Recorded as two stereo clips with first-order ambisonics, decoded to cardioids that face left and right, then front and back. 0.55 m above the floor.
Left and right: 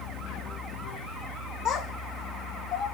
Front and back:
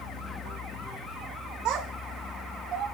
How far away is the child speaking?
About 0.9 m.